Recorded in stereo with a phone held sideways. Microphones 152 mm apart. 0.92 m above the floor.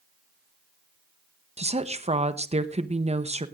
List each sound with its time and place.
1.6 s a woman speaking: 40° right (ahead or behind), 0.8 m